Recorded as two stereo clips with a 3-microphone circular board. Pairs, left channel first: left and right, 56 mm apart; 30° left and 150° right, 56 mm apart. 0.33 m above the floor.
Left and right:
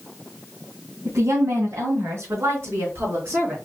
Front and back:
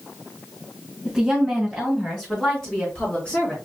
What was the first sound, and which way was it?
A woman speaking, 70° right.